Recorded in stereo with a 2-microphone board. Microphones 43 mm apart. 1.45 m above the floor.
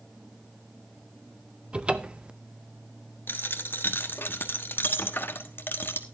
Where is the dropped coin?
50° left (ahead or behind), 1.3 m.